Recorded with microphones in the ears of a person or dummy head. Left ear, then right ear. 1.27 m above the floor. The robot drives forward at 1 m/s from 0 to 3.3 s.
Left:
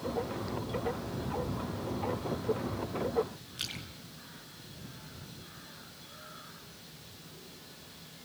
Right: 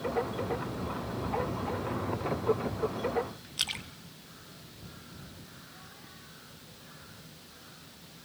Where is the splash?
25° right (ahead or behind), 0.8 m.